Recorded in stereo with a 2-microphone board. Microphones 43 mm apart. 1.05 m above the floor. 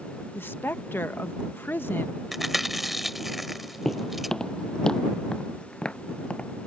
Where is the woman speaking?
60° left (ahead or behind).